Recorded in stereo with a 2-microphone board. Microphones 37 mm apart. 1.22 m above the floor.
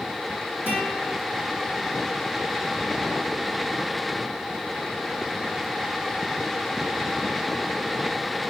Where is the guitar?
80° right, 4 m.